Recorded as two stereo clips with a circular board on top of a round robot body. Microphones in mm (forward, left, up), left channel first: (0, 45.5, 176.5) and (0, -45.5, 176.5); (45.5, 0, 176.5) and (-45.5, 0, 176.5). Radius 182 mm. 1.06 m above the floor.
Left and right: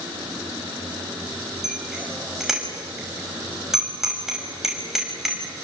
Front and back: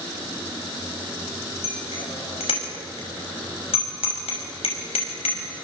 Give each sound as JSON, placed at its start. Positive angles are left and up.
{"t": 1.6, "sound": "a bicycle bell", "azimuth_deg": -5, "distance_m": 5.5}